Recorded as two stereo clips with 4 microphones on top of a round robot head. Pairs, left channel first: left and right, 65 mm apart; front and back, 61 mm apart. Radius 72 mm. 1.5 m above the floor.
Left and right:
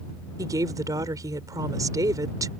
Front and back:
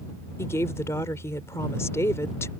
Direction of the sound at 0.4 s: 55° right.